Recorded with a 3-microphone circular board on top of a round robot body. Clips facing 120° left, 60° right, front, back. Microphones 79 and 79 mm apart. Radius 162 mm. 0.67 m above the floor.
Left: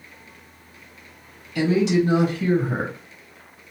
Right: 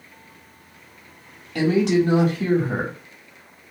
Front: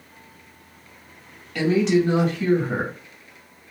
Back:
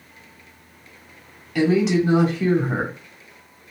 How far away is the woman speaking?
About 1.7 m.